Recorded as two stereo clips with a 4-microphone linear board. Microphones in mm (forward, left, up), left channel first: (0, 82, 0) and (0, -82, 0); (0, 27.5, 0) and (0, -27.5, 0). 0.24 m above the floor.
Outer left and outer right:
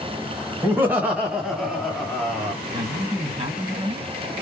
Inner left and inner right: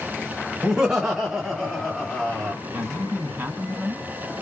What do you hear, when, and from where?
0.6 s laughter: 15° right (ahead or behind), 1.3 m; by 2.5 s 10° left (ahead or behind), 1.9 m
2.7 s a man speaking: 40° right (ahead or behind), 2.5 m